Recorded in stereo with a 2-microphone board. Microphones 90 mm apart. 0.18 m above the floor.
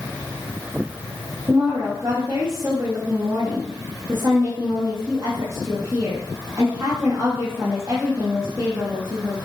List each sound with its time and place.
1.5 s a woman speaking: 35° right (ahead or behind), 5 m